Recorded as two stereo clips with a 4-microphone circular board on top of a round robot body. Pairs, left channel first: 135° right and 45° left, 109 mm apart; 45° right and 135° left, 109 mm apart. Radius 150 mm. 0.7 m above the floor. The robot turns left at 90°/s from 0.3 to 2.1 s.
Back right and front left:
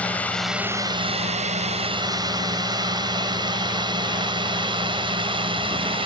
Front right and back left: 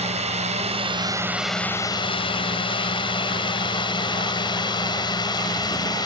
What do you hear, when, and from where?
0.0 s a drone: 145° left; by 6.1 s 5° left